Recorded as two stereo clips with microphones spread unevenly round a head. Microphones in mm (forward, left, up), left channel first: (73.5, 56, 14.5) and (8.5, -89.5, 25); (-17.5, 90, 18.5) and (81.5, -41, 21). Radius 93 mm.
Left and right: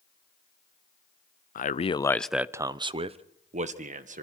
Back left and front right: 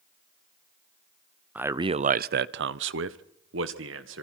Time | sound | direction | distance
1.6 | a man speaking | 30° left | 0.7 m